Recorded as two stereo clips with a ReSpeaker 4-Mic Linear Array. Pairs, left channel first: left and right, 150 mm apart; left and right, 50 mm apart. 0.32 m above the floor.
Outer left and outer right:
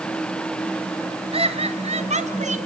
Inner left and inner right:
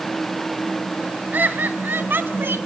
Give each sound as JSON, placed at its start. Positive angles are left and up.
{"t": 1.3, "sound": "laughter", "side_deg": -40, "distance_m": 2.5}